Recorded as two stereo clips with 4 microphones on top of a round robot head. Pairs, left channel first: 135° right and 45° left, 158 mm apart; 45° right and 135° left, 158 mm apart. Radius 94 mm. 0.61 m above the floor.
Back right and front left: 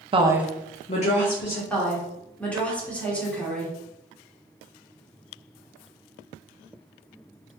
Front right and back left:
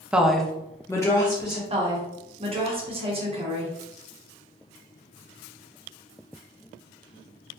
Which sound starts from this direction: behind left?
A woman speaking, at 1.7 s.